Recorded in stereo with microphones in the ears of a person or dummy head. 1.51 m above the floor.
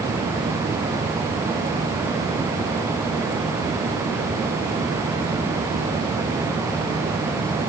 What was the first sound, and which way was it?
Only background noise.